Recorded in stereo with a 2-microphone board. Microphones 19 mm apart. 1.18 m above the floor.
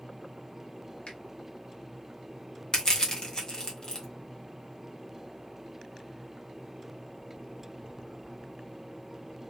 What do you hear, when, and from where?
1.1 s a finger snap: 85° left, 1.3 m
2.7 s crushing: 40° left (ahead or behind), 1.2 m